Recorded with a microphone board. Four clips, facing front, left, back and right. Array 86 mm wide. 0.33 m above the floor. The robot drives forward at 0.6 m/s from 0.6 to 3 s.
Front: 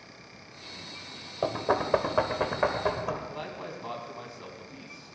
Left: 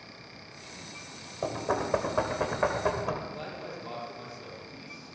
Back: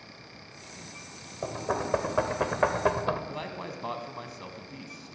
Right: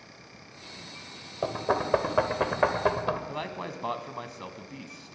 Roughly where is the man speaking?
Right.